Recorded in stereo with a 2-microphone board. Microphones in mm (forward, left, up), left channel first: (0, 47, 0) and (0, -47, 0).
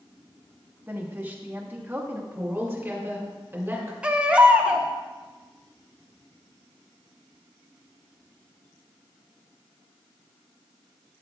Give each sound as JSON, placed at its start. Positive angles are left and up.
{"t": 0.9, "sound": "a woman speaking", "side_deg": -20, "distance_m": 1.0}
{"t": 2.3, "sound": "a woman speaking", "side_deg": -20, "distance_m": 2.0}
{"t": 4.0, "sound": "a baby crying", "side_deg": -10, "distance_m": 0.6}